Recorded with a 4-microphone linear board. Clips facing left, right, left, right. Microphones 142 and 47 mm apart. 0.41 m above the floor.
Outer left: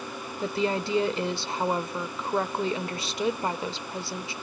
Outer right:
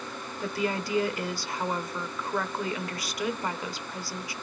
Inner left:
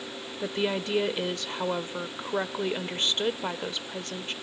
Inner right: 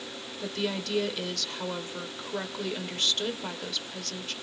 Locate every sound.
0.4 s a woman speaking: 25° left (ahead or behind), 1.1 m